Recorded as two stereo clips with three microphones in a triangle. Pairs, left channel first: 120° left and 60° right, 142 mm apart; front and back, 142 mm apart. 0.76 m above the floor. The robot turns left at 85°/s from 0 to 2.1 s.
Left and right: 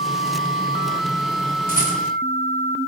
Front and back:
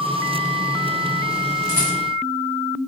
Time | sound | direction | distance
1.7 | a rattle | 115° left | 3 m